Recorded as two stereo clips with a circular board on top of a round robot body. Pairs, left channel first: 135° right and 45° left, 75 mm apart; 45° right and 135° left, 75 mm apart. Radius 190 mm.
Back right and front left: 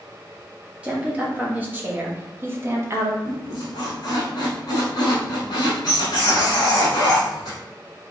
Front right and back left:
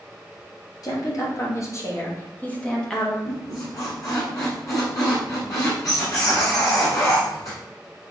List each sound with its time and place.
0.8 s a woman speaking: 25° right, 1.9 m; by 3.1 s 45° left, 1.3 m
3.2 s a squeak: 90° right, 0.9 m